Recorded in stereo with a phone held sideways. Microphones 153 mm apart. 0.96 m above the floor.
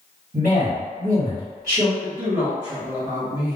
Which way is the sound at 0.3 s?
55° right (ahead or behind).